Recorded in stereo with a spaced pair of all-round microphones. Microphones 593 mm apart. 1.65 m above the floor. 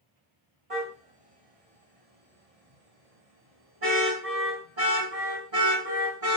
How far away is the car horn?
About 4.5 m.